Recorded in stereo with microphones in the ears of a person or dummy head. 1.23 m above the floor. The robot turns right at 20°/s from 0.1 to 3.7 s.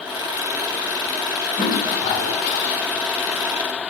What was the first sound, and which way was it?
A toilet flushing, 40° left (ahead or behind).